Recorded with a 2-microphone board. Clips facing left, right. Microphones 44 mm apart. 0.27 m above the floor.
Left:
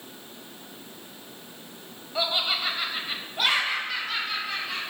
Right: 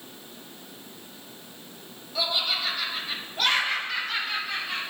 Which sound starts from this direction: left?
Laughter, at 2.1 s.